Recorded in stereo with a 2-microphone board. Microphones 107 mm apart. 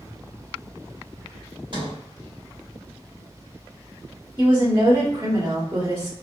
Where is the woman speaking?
20° right (ahead or behind), 1.3 m.